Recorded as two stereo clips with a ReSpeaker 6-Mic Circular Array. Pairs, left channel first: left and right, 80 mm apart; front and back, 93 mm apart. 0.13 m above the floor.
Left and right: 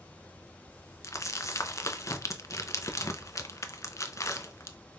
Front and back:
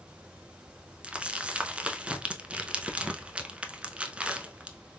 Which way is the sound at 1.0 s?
110° left.